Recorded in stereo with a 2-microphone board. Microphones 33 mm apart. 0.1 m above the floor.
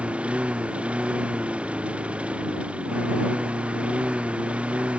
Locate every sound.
0.0 s a lawn mower: 40° right (ahead or behind)